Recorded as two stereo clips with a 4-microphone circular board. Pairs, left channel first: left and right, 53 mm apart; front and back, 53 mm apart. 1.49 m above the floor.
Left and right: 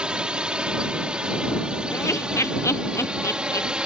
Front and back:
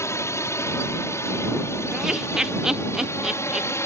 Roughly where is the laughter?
Left.